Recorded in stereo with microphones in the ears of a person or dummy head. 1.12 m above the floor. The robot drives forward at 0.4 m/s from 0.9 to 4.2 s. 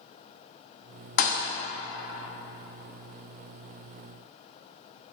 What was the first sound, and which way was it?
A thud, 35° left (ahead or behind).